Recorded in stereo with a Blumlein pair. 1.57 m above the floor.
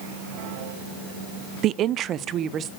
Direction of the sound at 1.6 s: 35° right.